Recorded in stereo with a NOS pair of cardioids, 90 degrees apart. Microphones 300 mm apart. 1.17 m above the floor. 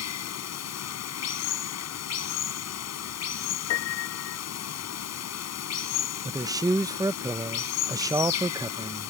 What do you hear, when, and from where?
0.0 s running water: 60° left
3.7 s a piano: 65° left
6.2 s a man speaking: 10° right